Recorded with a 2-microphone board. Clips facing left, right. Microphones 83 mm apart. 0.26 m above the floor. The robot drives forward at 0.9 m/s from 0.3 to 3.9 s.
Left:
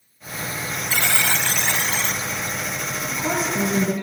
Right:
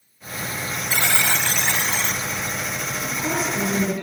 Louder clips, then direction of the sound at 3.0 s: Left 1 dB; 30° left (ahead or behind).